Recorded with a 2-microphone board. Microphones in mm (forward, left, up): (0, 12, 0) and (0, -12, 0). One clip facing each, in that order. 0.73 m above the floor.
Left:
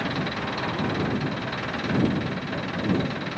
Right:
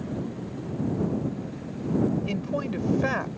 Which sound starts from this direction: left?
An engine running, at 0.0 s.